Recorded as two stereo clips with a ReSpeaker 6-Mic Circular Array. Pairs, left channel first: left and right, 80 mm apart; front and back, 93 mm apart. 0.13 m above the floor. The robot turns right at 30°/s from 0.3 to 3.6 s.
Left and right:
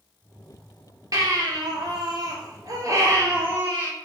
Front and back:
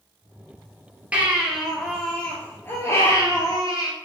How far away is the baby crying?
About 1.2 m.